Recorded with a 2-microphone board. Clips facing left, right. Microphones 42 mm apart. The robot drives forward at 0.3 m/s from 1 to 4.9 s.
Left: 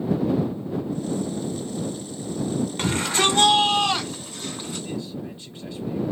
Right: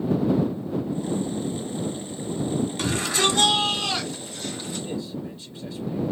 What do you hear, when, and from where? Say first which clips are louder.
2.8 s a shout: left 3 dB; 35° left (ahead or behind), 2.5 m; by 4.9 s 30° left (ahead or behind), 3 m
4.8 s a man speaking: even; 30° left (ahead or behind), 2.5 m